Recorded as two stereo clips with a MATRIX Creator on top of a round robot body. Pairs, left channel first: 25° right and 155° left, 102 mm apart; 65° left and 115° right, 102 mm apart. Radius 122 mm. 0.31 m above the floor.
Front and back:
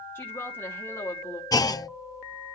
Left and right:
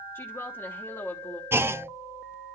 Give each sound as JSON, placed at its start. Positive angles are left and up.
{"t": 0.1, "sound": "a woman speaking", "azimuth_deg": 20, "distance_m": 1.0}
{"t": 1.5, "sound": "a clunk", "azimuth_deg": -55, "distance_m": 0.6}